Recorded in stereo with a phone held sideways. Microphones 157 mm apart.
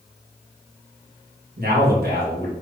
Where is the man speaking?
85° right, 1.3 m.